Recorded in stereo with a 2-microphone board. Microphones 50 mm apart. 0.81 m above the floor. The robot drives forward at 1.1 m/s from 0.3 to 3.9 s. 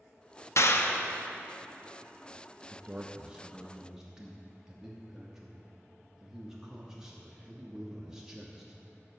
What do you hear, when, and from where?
0.6 s a clap: 65° left (ahead or behind), 0.6 m; by 1.1 s 35° left (ahead or behind), 0.9 m
2.7 s a man speaking: 20° right (ahead or behind), 0.6 m; by 8.8 s 10° right (ahead or behind), 1.2 m